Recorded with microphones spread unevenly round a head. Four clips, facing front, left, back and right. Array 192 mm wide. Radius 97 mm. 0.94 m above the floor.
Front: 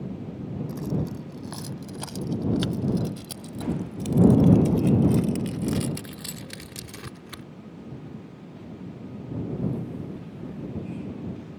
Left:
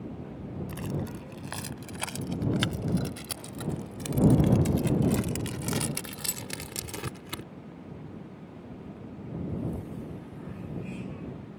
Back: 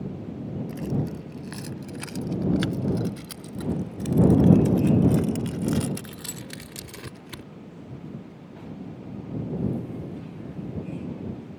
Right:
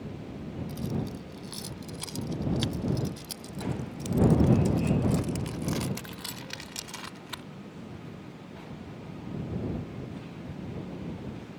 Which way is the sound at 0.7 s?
55° left.